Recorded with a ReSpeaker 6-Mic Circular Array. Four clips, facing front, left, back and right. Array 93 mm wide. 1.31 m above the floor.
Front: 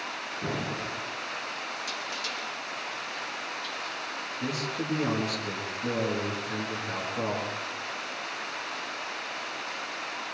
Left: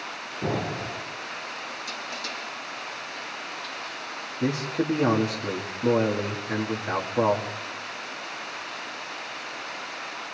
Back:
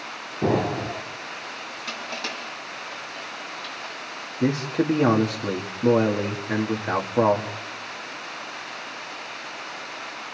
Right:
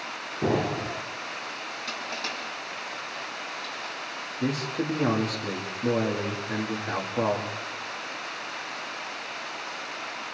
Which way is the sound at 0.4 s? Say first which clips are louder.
Right 3 dB, back 11 dB; 160° right.